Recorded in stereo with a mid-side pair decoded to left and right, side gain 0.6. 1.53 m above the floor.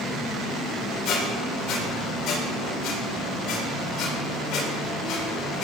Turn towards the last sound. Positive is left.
turn(degrees=60)